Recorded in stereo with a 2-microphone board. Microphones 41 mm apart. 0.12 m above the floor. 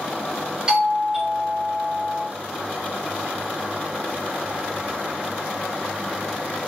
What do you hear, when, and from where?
0.7 s a doorbell: 15° right (ahead or behind), 1.8 m